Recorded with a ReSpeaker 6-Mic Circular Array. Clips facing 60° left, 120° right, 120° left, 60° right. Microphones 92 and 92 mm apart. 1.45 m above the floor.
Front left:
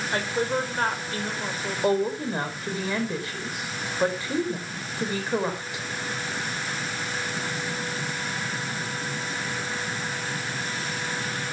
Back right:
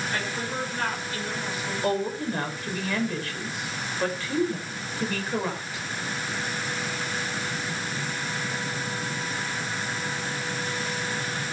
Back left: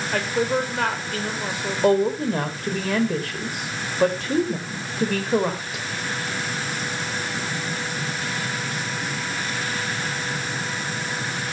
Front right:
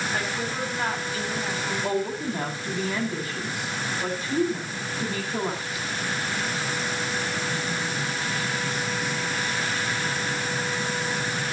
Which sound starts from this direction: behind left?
A woman speaking, at 1.8 s.